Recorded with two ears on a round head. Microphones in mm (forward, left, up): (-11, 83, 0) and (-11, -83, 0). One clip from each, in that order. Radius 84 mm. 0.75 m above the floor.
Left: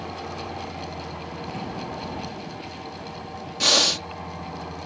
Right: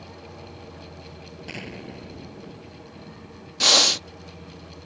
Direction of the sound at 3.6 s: 20° right (ahead or behind).